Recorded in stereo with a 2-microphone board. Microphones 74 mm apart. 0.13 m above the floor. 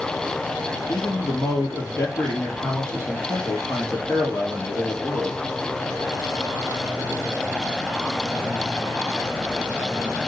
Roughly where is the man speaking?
Left.